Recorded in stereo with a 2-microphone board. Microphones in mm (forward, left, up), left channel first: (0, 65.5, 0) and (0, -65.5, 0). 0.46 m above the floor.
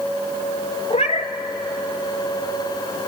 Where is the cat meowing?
55° left (ahead or behind), 0.9 m.